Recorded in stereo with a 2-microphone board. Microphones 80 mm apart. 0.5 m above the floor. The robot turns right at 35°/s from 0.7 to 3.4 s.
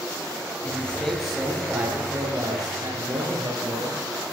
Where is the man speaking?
160° left, 8 m; by 4.0 s 105° right, 8 m.